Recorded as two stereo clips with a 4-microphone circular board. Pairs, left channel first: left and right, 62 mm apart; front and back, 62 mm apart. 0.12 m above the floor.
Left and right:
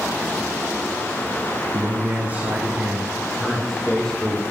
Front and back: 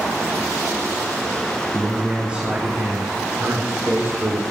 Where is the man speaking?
105° right, 1.8 m; by 4.4 s 160° left, 2 m.